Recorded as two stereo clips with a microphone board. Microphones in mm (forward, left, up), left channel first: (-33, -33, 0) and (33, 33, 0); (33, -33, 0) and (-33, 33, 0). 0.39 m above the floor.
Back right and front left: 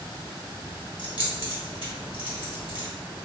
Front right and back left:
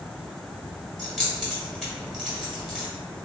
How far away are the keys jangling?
About 1.5 m.